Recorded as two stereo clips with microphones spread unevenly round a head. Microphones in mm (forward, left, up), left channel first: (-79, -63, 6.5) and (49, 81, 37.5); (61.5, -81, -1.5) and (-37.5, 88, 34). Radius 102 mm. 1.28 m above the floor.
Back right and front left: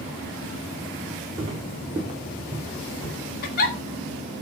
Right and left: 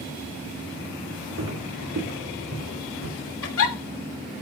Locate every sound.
1.4 s footsteps: 110° left, 5 m; by 3.1 s 105° left, 7 m
3.4 s a giggle: 85° right, 3 m